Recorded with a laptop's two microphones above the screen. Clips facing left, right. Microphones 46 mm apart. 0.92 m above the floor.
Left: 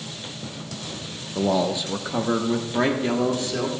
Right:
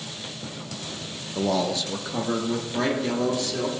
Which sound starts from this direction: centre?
A man speaking, at 1.4 s.